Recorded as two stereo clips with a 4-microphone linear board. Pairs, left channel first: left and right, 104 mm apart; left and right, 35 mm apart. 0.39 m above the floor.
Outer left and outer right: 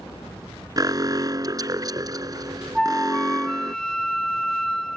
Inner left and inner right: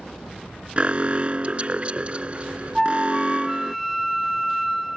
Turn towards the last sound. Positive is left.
turn(degrees=5)  # may be behind; listen again after turning